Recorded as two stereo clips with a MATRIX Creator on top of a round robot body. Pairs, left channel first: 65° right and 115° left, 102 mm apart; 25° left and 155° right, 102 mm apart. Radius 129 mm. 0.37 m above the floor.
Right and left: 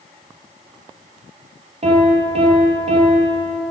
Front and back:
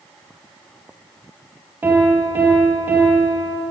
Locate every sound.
1.8 s a piano: 130° left, 5 m